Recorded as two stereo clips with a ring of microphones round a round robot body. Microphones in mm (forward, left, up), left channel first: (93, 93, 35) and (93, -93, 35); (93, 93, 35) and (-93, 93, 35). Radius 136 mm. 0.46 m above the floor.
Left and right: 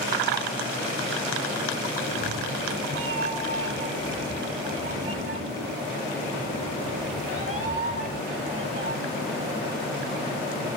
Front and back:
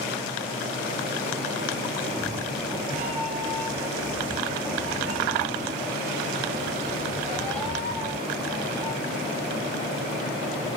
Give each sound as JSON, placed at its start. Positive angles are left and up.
{"t": 2.0, "sound": "a cat meowing", "azimuth_deg": -100, "distance_m": 1.0}